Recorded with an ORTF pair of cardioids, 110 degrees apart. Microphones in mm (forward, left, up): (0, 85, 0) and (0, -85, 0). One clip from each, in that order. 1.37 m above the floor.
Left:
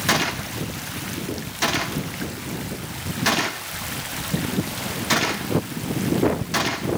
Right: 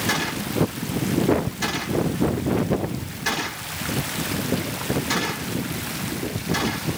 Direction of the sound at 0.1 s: 40° left.